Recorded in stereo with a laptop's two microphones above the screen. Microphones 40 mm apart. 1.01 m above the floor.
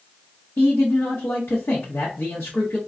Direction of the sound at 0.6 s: 75° left (ahead or behind).